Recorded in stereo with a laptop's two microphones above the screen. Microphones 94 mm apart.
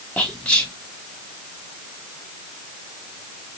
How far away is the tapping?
No tapping in this recording.